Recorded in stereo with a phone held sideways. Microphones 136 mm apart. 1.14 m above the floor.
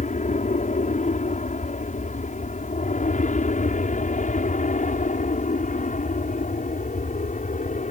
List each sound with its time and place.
0.0 s an aircraft: 65° left (ahead or behind)